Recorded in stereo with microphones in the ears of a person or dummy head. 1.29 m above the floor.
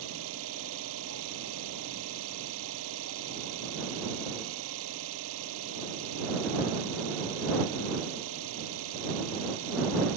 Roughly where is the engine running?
Right.